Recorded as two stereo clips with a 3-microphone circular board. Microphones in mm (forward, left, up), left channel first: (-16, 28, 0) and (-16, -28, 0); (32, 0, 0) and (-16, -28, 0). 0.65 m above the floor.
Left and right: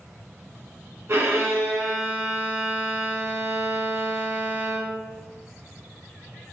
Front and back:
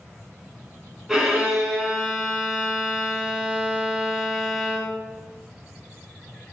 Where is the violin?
70° right, 0.9 m.